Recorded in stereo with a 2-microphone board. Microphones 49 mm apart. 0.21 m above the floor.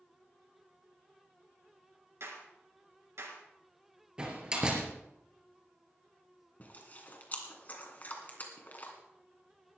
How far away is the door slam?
About 3.5 m.